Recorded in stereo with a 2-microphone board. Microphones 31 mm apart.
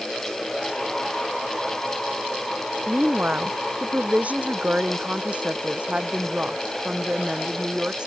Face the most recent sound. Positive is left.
turn(degrees=-30)  # may be behind; listen again after turning